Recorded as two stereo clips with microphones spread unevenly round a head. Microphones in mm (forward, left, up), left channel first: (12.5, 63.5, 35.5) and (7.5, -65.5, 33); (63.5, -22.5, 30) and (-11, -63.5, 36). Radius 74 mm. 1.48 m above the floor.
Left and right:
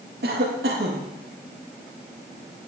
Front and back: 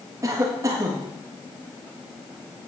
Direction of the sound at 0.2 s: 105° right.